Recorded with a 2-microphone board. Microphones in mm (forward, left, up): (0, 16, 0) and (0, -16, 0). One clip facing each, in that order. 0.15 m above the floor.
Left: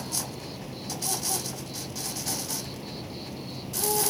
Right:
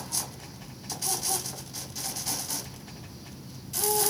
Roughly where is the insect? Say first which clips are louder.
Left 3 dB; left.